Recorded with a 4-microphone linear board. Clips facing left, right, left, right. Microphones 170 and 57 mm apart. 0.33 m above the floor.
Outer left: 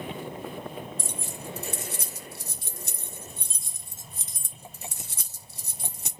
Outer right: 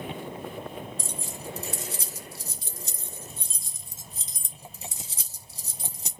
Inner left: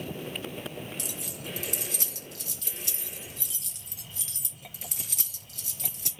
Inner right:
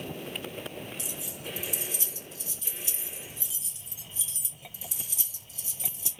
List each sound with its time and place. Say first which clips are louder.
1.0 s keys jangling: even, inner left 1 dB; 65° left (ahead or behind), 2 m